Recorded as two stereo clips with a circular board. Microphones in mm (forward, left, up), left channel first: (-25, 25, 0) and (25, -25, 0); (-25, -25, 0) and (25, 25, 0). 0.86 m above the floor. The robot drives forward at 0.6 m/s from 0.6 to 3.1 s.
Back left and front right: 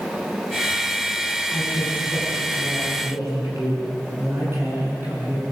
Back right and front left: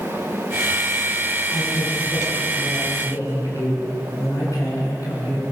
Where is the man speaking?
95° right, 8.5 m; by 5.4 s 100° right, 9 m.